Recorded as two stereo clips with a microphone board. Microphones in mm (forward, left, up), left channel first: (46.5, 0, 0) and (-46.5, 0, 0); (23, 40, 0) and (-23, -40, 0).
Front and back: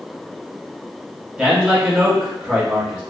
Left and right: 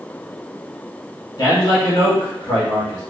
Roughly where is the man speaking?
Left.